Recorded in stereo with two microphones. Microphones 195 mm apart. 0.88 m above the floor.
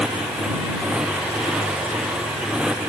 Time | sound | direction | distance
0.0 | a motorcycle | 5° right (ahead or behind) | ?